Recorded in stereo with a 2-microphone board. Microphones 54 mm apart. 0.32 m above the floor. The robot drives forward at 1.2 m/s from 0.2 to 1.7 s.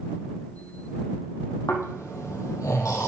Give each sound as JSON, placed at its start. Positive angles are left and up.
{"t": 1.7, "sound": "snoring", "side_deg": 70, "distance_m": 2.0}